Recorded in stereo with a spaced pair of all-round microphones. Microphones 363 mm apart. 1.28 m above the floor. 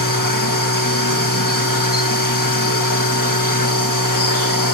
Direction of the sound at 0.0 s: 65° left (ahead or behind).